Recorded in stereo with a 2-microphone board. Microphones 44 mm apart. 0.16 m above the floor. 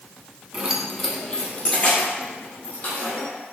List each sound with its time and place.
0.5 s keys jangling: 30° right (ahead or behind), 0.8 m; by 3.3 s 40° left (ahead or behind), 3 m